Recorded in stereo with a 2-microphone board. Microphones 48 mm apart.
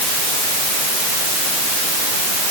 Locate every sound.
Only background noise.